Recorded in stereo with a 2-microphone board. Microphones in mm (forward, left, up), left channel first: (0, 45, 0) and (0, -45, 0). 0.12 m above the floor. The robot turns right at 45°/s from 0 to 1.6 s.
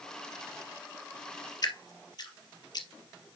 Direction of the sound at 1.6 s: 50° left (ahead or behind).